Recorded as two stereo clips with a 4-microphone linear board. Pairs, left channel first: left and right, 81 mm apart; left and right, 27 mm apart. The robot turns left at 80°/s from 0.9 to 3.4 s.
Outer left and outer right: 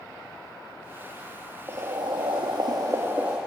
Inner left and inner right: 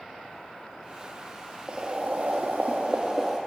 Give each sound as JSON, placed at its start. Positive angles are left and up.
{"t": 1.7, "sound": "boiling", "azimuth_deg": -40, "distance_m": 1.0}